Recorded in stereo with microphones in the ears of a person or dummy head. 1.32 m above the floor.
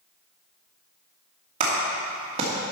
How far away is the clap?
About 2.0 m.